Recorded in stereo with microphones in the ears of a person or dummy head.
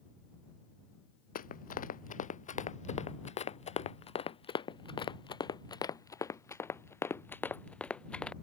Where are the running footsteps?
40° left (ahead or behind); by 8.3 s centre (ahead or behind).